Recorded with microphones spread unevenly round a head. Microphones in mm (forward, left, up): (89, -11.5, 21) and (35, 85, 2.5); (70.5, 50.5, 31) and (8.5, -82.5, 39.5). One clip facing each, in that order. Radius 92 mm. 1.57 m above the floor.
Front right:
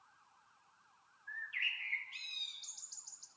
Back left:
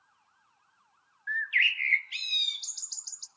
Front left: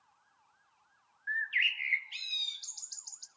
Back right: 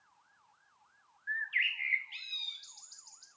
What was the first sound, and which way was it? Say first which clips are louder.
A bird: back left 14 dB, front left 2 dB; 120° left.